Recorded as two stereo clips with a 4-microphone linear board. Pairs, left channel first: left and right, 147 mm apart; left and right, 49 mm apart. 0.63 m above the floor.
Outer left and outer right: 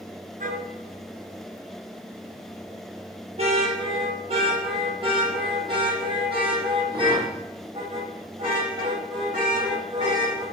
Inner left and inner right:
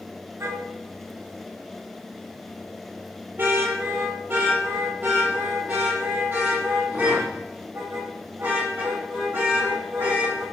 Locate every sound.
0.4 s a car horn: 70° right (ahead or behind), 3.5 m; by 10.4 s 30° right (ahead or behind), 14 m